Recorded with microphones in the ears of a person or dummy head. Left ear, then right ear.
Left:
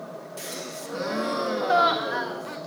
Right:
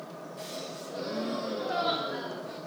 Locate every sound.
0.4 s a gasp: 45° left (ahead or behind), 0.8 m